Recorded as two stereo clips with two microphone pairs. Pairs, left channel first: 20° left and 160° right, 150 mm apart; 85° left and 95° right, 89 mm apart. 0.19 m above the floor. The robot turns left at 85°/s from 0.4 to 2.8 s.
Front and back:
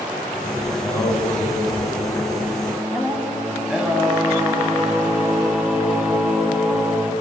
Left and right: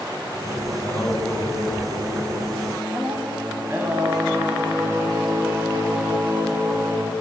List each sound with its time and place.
0.7 s singing: 90° left, 0.9 m; by 7.1 s 85° right, 0.9 m